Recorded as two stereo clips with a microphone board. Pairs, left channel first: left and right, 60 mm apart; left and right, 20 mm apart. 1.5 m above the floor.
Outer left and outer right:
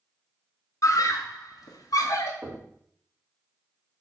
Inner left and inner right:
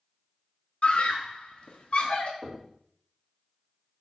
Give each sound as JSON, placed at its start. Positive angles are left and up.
{"t": 0.8, "sound": "a scream", "side_deg": 55, "distance_m": 1.4}
{"t": 2.4, "sound": "knocking", "side_deg": -30, "distance_m": 2.0}